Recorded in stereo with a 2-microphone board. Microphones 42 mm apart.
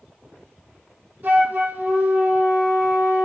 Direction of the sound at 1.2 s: 50° right (ahead or behind).